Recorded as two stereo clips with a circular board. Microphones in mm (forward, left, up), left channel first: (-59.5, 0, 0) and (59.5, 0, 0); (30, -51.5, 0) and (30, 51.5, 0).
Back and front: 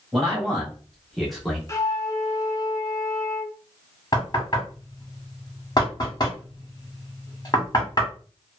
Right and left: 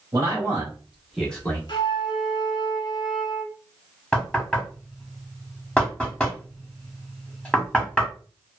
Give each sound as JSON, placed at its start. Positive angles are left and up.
{"t": 0.1, "sound": "a man speaking", "azimuth_deg": 85, "distance_m": 1.3}
{"t": 1.7, "sound": "a flute", "azimuth_deg": -120, "distance_m": 0.6}
{"t": 4.1, "sound": "knocking", "azimuth_deg": -165, "distance_m": 1.1}